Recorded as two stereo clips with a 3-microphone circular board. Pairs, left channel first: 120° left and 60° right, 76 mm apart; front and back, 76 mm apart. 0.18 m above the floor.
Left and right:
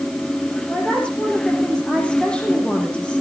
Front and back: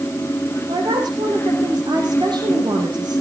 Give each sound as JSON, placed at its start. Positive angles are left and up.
{"t": 0.7, "sound": "a woman speaking", "azimuth_deg": -165, "distance_m": 8.0}